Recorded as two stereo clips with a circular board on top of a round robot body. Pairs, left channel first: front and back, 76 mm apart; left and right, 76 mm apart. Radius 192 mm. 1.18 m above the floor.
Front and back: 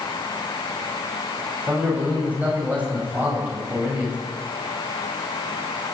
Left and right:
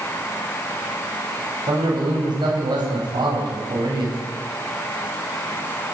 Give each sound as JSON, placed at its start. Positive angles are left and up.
{"t": 1.7, "sound": "a man speaking", "azimuth_deg": -110, "distance_m": 10.0}